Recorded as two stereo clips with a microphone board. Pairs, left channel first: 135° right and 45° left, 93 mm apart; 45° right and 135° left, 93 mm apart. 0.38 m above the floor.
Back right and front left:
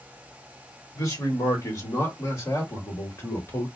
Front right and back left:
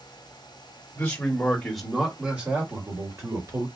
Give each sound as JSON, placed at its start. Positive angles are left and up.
{"t": 0.9, "sound": "a man speaking", "azimuth_deg": -110, "distance_m": 1.4}